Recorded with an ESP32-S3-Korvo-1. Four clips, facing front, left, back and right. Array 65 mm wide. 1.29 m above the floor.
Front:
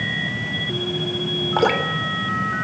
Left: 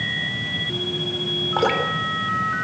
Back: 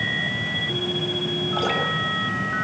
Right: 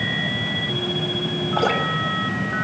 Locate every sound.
1.6 s dripping: 30° left, 4 m